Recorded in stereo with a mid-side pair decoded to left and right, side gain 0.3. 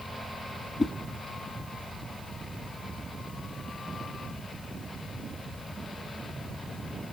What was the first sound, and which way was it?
A whoosh, 40° left.